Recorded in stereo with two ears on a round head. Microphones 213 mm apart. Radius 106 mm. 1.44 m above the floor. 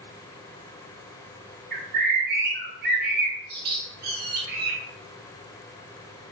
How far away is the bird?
About 2.5 m.